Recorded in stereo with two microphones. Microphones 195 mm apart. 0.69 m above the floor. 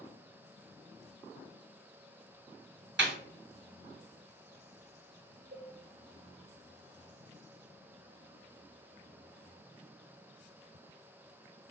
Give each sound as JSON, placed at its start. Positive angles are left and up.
{"t": 3.0, "sound": "a snare drum", "side_deg": -65, "distance_m": 1.6}
{"t": 5.5, "sound": "a cowbell", "side_deg": -70, "distance_m": 0.9}